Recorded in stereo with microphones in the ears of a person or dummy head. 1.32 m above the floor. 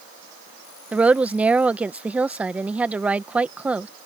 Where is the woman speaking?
5° right (ahead or behind).